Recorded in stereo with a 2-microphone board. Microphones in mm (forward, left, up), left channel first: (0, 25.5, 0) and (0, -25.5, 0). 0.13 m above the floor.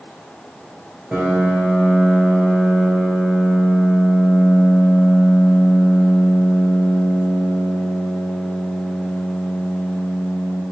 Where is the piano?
30° right (ahead or behind), 0.8 m.